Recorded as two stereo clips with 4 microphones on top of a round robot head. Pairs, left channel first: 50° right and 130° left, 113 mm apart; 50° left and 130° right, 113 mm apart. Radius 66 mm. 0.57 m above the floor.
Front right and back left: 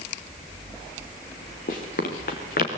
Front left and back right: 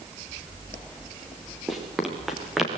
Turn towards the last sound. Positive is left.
turn(degrees=-40)